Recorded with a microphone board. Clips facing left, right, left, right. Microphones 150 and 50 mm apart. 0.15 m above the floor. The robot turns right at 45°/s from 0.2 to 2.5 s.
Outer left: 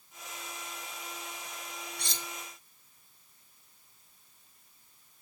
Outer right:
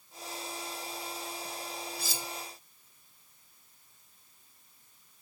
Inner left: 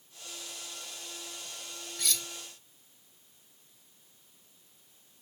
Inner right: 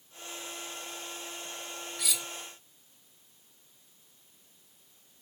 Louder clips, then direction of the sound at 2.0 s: Outer right 3 dB, inner left 1 dB; 5° right (ahead or behind).